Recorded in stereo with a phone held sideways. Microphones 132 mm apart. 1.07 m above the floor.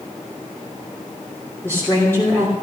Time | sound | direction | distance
1.6 | a woman speaking | 15° left (ahead or behind) | 3 m